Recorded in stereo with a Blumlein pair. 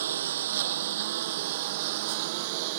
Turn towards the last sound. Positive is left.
turn(degrees=-50)